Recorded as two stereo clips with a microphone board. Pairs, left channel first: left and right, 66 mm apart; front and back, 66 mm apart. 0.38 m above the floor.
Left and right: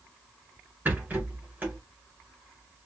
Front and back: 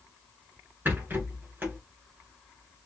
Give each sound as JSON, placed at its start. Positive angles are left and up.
{"t": 0.8, "sound": "a rattle", "azimuth_deg": -145, "distance_m": 1.9}